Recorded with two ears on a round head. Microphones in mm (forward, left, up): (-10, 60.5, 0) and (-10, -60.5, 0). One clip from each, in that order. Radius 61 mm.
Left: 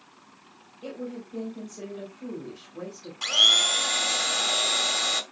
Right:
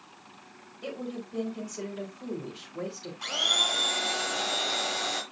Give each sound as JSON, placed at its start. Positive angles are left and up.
{"t": 0.8, "sound": "a woman speaking", "side_deg": -30, "distance_m": 4.0}
{"t": 3.2, "sound": "a blender", "side_deg": 60, "distance_m": 1.4}